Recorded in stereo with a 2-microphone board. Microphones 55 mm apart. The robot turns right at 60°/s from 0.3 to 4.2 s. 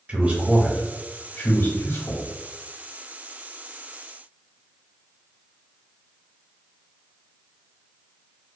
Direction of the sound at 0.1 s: 25° right (ahead or behind).